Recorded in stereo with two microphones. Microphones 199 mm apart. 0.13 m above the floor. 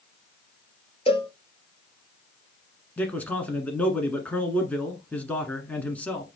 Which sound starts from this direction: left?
A cowbell, at 1.1 s.